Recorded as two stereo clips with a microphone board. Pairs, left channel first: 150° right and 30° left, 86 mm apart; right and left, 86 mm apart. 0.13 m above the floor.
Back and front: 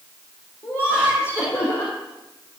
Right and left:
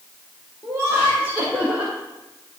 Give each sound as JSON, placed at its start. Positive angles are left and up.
{"t": 0.6, "sound": "laughter", "azimuth_deg": 145, "distance_m": 4.5}